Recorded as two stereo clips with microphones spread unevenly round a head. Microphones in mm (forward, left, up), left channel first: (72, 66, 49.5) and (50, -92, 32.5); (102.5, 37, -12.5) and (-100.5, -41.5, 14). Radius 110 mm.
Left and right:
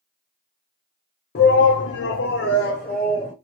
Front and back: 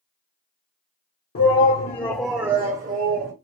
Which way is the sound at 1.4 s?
55° left.